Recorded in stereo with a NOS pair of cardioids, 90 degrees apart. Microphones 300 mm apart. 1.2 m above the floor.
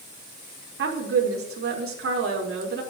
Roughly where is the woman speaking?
Ahead right.